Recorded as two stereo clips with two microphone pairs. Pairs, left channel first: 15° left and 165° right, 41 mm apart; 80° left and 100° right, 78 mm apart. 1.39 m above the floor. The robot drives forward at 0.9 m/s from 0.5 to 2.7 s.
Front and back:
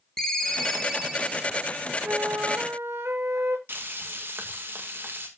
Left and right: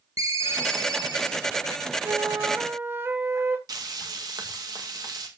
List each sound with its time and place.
0.2 s a ringtone: 65° right, 1.7 m; by 1.4 s 95° right, 1.6 m
2.0 s a flute: 145° right, 0.8 m; by 3.6 s 160° right, 1.3 m
3.7 s frying: 135° right, 2 m